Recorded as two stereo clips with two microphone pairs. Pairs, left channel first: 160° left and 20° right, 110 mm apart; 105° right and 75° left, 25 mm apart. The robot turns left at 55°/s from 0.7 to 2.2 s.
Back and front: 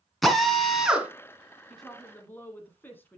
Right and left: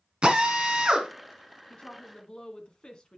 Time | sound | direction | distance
0.2 | a drill | 70° left | 1.8 m
1.7 | a woman speaking | 110° right | 1.5 m